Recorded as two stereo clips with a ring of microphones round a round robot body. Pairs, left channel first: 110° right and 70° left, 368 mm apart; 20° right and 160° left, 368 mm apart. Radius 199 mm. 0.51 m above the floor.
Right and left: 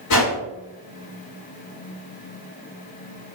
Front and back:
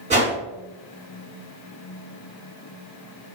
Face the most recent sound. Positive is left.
turn(degrees=-135)